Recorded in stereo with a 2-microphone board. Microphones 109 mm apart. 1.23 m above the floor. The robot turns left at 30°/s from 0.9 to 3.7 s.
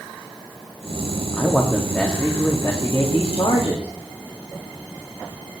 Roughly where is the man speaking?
Behind.